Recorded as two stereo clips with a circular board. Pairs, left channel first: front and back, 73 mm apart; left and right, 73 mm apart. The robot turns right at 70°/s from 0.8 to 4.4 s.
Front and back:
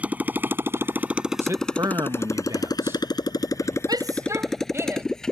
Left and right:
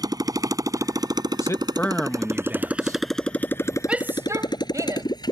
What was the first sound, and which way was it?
A motorcycle, 110° right.